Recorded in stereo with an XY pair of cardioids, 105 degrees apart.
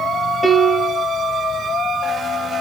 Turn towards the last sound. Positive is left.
turn(degrees=0)